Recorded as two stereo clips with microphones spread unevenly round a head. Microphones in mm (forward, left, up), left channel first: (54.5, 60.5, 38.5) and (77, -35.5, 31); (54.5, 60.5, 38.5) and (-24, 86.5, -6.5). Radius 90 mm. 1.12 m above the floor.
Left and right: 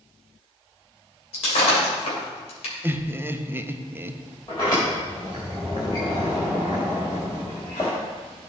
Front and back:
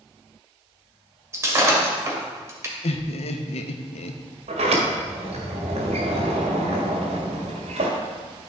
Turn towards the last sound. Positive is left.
turn(degrees=170)